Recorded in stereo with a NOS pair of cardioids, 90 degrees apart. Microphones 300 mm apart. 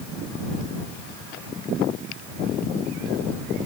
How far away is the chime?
No chime in this recording.